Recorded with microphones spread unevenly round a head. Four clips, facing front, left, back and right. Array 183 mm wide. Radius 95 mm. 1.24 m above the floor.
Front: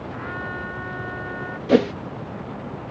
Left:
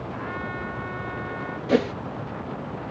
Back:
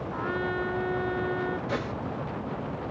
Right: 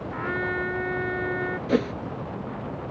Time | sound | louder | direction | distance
0.1 | a trumpet | right 6 dB, back 3 dB | 135° right | ?
1.7 | a whoosh | left 3 dB, front 14 dB | straight ahead | ?